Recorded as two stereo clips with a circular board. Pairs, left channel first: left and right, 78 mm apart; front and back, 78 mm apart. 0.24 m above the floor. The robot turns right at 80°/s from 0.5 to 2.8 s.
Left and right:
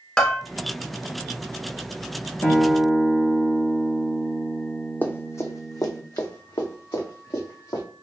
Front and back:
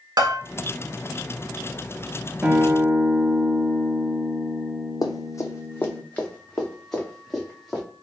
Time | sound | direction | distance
0.2 | a bell | 170° left | 0.8 m
2.4 | a guitar | 130° left | 0.9 m
5.0 | running footsteps | 25° left | 0.7 m